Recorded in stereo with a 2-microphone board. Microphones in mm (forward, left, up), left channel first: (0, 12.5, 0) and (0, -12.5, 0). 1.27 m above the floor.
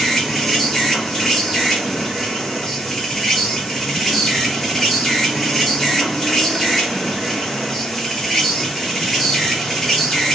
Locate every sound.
0.0 s an insect: 20° left (ahead or behind), 1.1 m